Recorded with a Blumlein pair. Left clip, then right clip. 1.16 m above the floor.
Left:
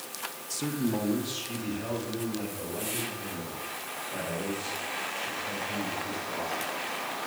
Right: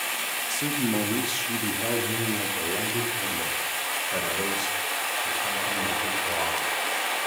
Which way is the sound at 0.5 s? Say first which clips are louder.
Right 2 dB; straight ahead.